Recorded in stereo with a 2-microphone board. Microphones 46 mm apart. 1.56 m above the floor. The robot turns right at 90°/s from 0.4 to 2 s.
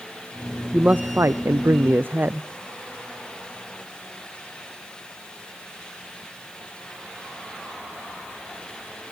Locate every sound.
0.7 s a man speaking: 160° right, 0.5 m; by 2.5 s 45° right, 0.5 m